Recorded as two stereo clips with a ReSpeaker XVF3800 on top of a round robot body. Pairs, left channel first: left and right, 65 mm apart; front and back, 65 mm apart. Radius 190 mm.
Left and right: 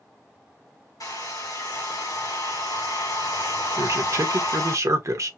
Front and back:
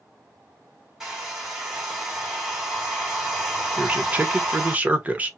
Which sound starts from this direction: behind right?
A man speaking, at 3.8 s.